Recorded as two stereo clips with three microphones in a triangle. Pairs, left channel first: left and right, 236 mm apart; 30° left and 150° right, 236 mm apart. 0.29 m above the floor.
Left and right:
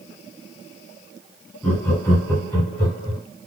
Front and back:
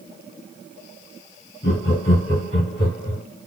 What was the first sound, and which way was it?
Laughter, 15° left.